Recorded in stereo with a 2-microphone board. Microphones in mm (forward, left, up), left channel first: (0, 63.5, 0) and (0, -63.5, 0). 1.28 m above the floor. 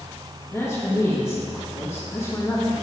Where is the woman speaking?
25° left (ahead or behind), 1.6 m.